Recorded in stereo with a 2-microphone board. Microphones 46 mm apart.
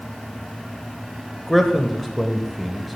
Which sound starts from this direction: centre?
A man speaking, at 1.5 s.